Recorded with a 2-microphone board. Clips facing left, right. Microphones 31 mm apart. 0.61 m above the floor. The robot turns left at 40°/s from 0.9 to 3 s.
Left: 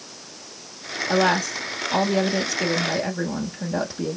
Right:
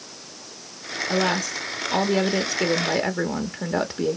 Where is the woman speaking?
20° left, 0.7 m; by 4.2 s 60° right, 0.7 m.